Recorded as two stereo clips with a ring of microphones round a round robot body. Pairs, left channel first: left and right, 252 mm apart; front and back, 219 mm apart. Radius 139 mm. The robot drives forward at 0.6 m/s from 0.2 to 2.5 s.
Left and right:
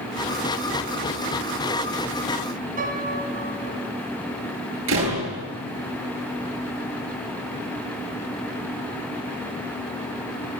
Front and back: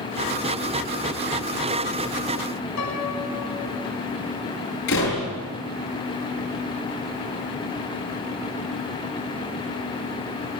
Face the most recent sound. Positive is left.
turn(degrees=-45)